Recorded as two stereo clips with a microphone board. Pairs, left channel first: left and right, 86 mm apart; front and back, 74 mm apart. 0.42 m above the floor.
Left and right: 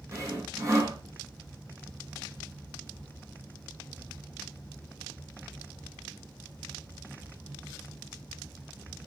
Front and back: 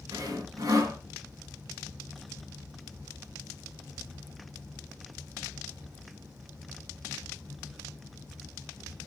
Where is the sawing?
145° right, 5 m.